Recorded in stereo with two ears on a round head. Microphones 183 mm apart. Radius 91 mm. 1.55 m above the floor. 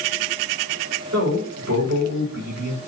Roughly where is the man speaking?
Right.